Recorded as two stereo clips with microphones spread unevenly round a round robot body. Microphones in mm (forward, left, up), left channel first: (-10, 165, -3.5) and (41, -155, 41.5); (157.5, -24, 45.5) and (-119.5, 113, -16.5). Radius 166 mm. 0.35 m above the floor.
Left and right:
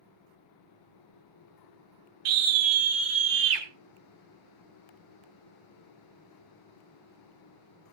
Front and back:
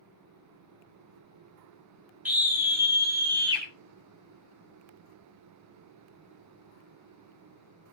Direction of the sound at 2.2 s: 125° right.